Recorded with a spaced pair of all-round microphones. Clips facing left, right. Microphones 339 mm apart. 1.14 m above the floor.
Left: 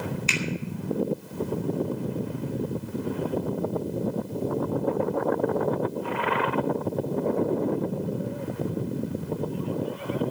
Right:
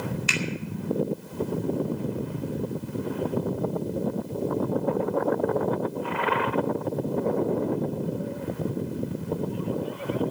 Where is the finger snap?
20° right (ahead or behind), 2.5 m.